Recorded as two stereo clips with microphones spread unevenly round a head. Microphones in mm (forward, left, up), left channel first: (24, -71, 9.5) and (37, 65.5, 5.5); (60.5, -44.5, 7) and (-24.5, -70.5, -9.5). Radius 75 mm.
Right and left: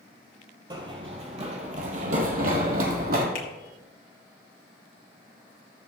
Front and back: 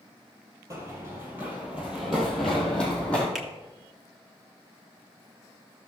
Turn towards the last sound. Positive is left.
turn(degrees=-75)